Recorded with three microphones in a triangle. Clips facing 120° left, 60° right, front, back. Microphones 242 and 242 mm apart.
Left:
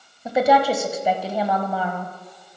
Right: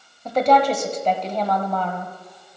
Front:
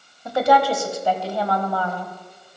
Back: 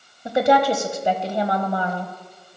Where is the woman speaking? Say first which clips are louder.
Even, back 1 dB; 175° right, 0.9 m.